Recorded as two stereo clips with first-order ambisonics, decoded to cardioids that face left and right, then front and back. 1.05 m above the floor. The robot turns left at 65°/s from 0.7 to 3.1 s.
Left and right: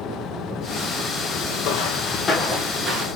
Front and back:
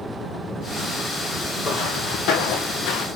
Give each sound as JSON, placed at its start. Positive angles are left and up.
{"t": 1.6, "sound": "footsteps", "azimuth_deg": 70, "distance_m": 2.0}